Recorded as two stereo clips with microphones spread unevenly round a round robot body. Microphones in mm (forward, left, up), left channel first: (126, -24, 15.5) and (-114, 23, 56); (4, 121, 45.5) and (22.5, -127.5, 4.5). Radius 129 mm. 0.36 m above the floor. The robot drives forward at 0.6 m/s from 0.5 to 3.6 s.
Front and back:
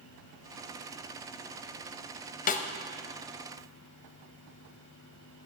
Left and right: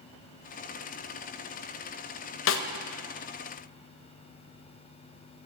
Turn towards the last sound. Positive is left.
turn(degrees=130)